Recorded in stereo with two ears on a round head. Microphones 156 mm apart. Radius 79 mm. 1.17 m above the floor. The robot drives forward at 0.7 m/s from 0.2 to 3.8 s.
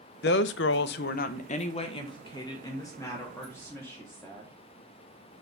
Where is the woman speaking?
60° left (ahead or behind), 0.7 m; by 4.5 s 15° left (ahead or behind), 2.5 m.